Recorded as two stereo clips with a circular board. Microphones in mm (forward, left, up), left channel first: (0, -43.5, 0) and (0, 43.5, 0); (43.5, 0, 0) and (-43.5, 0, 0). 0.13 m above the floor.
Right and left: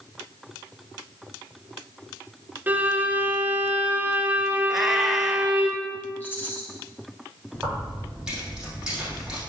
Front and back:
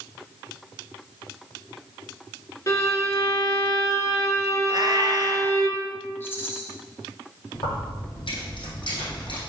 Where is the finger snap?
I don't hear a finger snap.